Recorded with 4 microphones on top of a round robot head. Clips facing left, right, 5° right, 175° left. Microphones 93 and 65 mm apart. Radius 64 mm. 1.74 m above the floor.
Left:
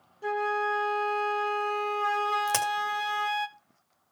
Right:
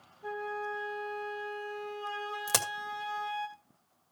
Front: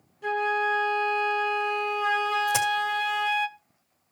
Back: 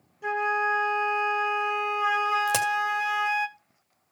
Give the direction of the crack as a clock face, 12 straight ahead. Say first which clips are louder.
Left 7 dB, front 1 dB; 6 o'clock.